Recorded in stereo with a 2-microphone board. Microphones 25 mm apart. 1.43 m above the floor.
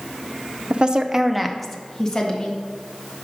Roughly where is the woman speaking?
Right.